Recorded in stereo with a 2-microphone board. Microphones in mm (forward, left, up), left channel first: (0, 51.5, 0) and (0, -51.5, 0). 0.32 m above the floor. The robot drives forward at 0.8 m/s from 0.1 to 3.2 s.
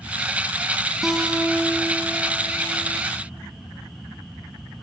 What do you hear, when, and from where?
1.0 s a guitar: centre (ahead or behind), 0.7 m